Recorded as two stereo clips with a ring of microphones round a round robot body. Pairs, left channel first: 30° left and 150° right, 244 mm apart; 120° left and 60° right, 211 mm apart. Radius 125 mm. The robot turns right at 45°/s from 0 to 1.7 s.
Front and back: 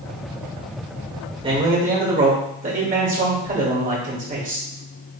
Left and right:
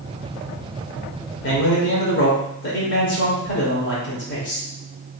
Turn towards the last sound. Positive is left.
turn(degrees=155)